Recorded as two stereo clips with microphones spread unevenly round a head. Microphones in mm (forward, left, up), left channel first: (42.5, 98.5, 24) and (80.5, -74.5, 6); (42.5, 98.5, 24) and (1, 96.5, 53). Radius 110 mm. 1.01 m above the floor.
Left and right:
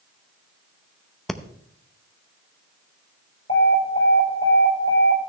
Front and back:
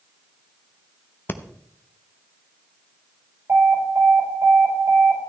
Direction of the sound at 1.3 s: 10° left.